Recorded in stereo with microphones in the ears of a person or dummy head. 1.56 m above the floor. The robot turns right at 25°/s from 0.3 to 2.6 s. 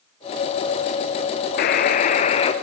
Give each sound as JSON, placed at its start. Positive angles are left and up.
{"t": 1.6, "sound": "a buzzer", "side_deg": 50, "distance_m": 0.5}